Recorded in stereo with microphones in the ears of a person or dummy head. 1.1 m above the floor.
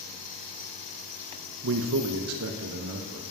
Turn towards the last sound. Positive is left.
turn(degrees=-70)  # may be behind; listen again after turning